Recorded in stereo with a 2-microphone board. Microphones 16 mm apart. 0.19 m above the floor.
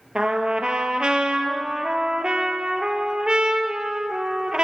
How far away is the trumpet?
About 1.9 m.